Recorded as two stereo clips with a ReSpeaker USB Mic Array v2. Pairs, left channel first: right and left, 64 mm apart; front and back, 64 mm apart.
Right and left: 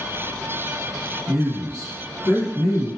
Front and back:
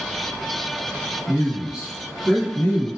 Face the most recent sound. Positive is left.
turn(degrees=-80)